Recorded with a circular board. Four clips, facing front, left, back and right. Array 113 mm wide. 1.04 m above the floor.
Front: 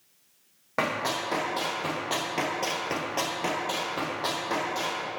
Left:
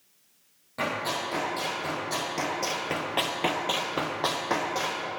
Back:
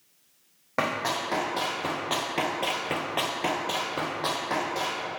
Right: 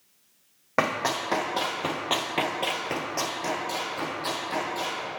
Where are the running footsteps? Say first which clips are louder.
Right 4 dB, back 1 dB; 90° right, 2.5 m; by 5.0 s 95° left, 2.5 m.